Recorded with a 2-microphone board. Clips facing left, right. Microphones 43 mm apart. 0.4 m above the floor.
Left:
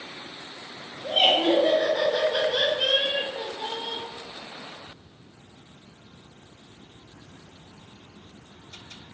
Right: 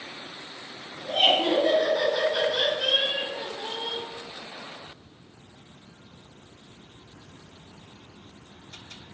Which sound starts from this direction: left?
Laughter, at 1.0 s.